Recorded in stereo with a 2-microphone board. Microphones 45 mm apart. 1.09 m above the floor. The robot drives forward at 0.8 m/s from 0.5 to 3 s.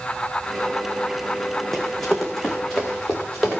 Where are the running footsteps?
5° left (ahead or behind), 3.5 m; by 3.6 s centre (ahead or behind), 5.5 m.